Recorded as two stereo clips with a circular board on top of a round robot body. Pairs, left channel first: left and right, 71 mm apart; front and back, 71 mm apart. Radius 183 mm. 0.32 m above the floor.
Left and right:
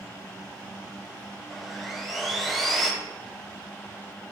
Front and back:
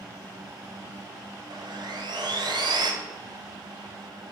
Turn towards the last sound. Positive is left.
turn(degrees=180)